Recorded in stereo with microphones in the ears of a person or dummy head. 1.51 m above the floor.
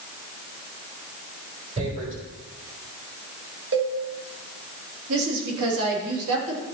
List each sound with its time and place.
1.8 s tearing paper: 35° right (ahead or behind), 4 m
3.7 s a cowbell: 60° right (ahead or behind), 2 m
5.1 s a woman speaking: 70° right (ahead or behind), 3 m